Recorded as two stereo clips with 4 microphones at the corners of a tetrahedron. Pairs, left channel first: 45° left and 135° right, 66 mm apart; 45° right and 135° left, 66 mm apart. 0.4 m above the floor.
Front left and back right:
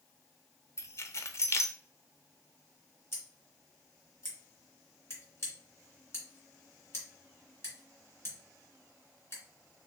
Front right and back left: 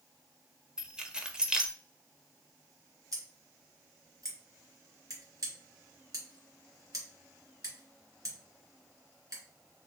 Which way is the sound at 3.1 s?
100° left.